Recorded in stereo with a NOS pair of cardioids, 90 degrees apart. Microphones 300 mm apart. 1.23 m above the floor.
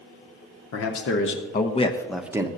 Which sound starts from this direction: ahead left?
A man speaking, at 0.7 s.